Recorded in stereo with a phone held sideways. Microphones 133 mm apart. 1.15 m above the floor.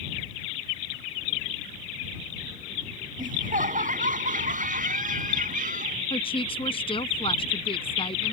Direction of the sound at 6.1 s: 45° left (ahead or behind).